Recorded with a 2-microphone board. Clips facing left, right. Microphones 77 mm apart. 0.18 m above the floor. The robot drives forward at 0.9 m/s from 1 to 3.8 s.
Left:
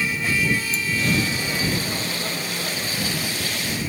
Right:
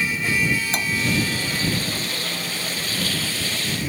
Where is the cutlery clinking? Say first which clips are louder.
Right 2 dB; 75° right (ahead or behind).